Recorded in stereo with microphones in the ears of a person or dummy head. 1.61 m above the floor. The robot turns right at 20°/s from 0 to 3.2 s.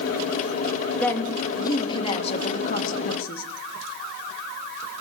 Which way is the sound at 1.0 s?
10° left.